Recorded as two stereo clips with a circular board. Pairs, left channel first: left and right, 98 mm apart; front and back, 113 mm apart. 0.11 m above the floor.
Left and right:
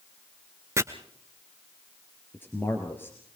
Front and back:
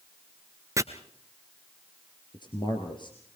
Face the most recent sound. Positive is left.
turn(degrees=30)